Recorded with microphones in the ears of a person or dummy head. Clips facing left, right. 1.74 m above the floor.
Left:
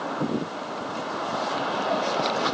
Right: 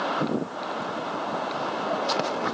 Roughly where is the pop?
No pop in this recording.